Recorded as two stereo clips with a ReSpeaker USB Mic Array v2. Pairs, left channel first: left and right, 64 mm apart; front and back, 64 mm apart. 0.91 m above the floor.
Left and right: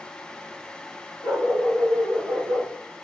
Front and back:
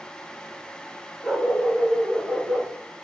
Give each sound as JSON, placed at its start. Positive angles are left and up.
{"t": 1.2, "sound": "a dog barking", "azimuth_deg": -90, "distance_m": 3.5}